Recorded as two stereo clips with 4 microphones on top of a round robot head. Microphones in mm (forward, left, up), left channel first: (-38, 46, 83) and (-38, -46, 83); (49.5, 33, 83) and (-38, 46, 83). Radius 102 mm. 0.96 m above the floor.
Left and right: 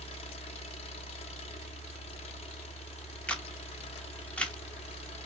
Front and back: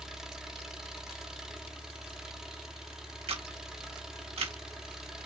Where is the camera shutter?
170° left, 1.1 m.